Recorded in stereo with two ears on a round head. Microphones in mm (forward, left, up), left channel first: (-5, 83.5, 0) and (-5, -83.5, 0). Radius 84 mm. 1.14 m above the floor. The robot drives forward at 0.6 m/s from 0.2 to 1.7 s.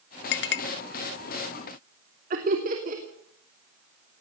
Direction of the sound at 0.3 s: 60° left (ahead or behind).